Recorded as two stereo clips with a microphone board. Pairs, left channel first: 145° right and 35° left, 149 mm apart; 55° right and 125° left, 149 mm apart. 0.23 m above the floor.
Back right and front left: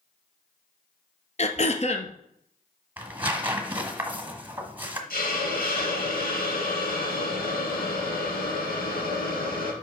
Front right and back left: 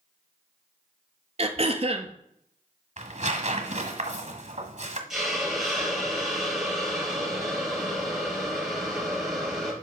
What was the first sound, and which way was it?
Throat clearing, 170° left.